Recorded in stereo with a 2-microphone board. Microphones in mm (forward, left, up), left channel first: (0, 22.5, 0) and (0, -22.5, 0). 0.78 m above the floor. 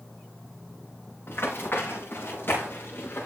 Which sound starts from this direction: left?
Running footsteps, at 1.3 s.